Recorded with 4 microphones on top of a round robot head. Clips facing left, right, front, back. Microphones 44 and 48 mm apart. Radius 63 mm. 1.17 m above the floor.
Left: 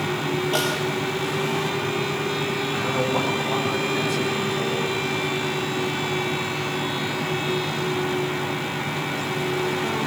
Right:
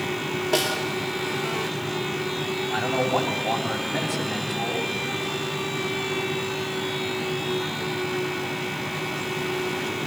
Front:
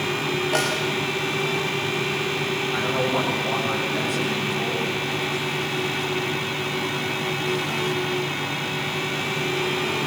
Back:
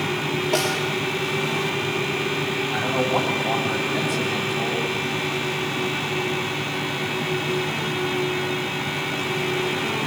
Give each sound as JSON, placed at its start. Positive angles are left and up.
{"t": 0.5, "sound": "a snare drum", "azimuth_deg": -90, "distance_m": 5.0}
{"t": 2.7, "sound": "a man speaking", "azimuth_deg": -95, "distance_m": 9.5}